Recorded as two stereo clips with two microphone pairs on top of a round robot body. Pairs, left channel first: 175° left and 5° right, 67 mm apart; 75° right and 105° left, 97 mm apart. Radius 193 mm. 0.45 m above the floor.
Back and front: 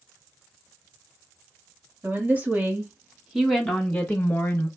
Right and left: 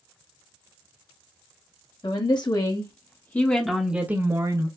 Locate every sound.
2.0 s a woman speaking: 70° right, 1.7 m; by 4.7 s 145° left, 1.3 m